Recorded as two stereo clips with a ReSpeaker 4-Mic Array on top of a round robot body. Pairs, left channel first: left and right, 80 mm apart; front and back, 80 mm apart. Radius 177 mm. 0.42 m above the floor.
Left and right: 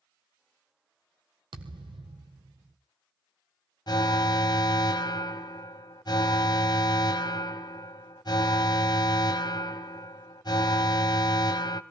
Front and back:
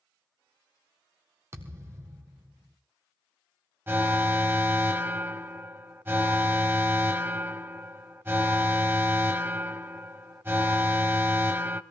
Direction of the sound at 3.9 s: 120° left.